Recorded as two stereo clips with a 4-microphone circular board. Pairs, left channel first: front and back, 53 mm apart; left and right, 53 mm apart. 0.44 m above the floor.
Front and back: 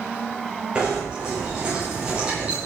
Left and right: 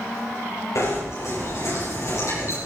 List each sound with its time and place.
0.8 s knocking: 110° left, 8.5 m